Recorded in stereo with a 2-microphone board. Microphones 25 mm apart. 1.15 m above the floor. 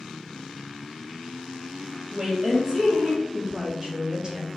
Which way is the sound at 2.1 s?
25° right (ahead or behind).